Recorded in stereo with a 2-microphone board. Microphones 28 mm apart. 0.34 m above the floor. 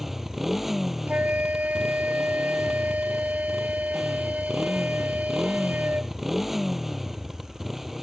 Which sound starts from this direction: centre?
A motorcycle, at 0.0 s.